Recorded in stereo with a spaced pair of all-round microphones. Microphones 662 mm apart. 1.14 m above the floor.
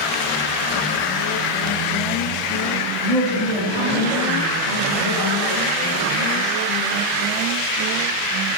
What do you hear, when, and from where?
3.0 s a woman speaking: 85° left, 2 m; by 6.2 s 40° left (ahead or behind), 3.5 m